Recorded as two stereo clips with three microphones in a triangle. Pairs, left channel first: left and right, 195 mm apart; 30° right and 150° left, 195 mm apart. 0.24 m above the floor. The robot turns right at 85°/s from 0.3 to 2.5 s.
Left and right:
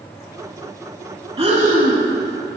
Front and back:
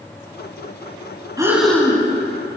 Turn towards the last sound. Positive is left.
turn(degrees=-45)